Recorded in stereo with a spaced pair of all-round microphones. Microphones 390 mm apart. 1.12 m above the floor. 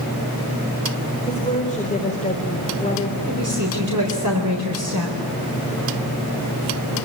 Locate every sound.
1.3 s a woman speaking: 20° left (ahead or behind), 4 m
3.3 s a woman speaking: 50° right (ahead or behind), 4 m